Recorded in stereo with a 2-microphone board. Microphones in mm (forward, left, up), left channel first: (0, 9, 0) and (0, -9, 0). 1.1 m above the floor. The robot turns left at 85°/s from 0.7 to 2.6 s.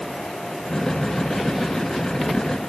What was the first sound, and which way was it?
Only background noise.